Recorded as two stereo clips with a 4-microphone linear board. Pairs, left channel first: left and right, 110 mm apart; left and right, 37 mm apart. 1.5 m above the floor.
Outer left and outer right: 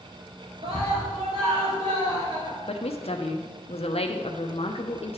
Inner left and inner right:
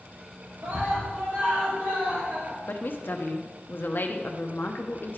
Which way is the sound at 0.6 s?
60° right (ahead or behind).